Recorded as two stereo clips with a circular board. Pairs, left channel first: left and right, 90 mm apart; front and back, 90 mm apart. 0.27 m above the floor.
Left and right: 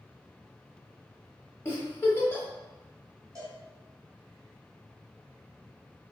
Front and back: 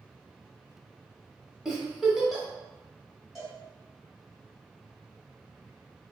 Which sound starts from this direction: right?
A cowbell, at 3.4 s.